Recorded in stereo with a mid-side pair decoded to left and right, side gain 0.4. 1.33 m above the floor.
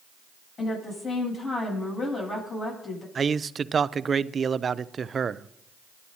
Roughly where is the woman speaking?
Ahead left.